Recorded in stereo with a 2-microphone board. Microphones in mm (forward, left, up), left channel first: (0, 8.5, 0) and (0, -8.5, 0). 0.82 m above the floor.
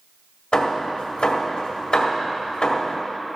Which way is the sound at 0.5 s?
60° left (ahead or behind).